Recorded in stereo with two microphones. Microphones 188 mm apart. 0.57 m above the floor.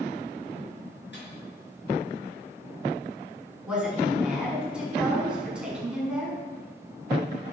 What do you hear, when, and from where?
1.1 s a microwave: 70° left (ahead or behind), 5.5 m
3.6 s a woman speaking: 5° right (ahead or behind), 6.5 m